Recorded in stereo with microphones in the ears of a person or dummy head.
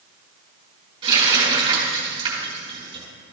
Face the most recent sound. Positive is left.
turn(degrees=-25)  # may be behind; listen again after turning